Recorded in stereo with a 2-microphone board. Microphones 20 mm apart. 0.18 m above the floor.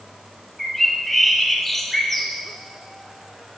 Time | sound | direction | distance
0.6 | a bird | 15° left (ahead or behind) | 1.2 m